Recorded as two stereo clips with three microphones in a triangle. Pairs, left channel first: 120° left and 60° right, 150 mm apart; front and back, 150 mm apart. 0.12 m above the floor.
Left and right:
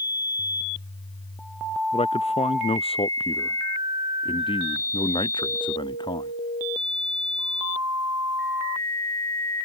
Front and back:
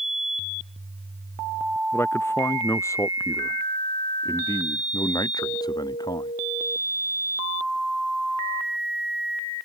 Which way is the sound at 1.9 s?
75° left.